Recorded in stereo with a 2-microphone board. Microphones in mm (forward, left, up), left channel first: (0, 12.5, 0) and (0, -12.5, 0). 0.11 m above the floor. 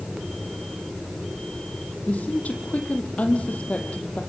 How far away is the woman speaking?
About 3 m.